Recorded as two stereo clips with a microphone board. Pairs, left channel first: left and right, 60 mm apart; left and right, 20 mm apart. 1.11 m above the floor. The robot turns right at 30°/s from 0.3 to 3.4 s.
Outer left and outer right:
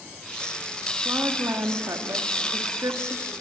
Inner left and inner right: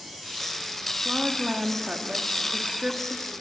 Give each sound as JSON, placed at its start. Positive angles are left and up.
{"t": 1.1, "sound": "a woman speaking", "azimuth_deg": -135, "distance_m": 1.7}